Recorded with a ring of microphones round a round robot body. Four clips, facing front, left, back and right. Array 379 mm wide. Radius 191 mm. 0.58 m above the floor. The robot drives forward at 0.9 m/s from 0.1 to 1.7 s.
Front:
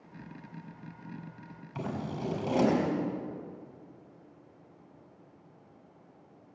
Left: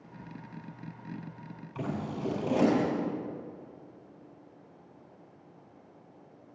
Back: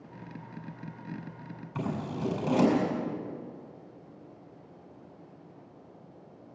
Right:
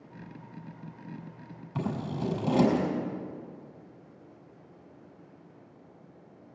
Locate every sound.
1.8 s scissors: 105° right, 5.5 m